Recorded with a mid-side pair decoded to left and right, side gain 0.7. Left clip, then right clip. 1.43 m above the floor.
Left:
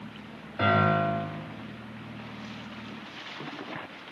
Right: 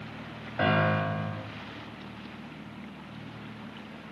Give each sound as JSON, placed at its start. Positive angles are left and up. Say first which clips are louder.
{"t": 0.6, "sound": "a piano", "louder": "left 2 dB", "azimuth_deg": -25, "distance_m": 3.0}